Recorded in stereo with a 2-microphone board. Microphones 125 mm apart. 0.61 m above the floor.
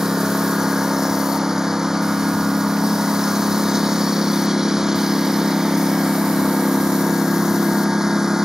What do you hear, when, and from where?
0.0 s a lawn mower: 5° right (ahead or behind)